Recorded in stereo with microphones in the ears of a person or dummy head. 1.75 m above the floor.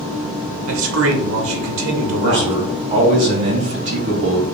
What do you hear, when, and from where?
0.7 s a man speaking: 80° right, 0.9 m
2.2 s a man speaking: 40° right (ahead or behind), 0.8 m